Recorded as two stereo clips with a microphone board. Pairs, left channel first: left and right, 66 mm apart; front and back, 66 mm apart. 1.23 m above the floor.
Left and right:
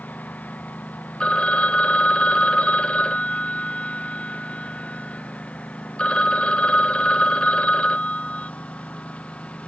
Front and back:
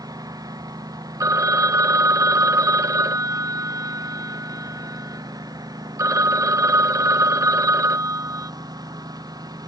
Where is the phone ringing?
160° left.